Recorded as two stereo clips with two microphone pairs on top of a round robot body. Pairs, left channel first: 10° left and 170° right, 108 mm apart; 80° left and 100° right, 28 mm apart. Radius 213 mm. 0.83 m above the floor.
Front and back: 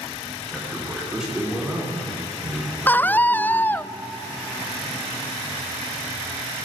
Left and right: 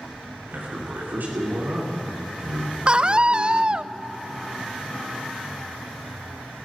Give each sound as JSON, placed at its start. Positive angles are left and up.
{"t": 0.5, "sound": "a man speaking", "azimuth_deg": -85, "distance_m": 3.0}
{"t": 2.9, "sound": "a scream", "azimuth_deg": -70, "distance_m": 0.6}